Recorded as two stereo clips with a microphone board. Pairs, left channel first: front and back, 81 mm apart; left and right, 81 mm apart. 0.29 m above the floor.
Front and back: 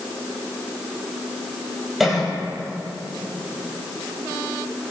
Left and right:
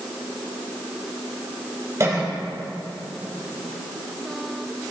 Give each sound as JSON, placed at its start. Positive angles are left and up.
{"t": 2.0, "sound": "a cough", "azimuth_deg": -90, "distance_m": 1.4}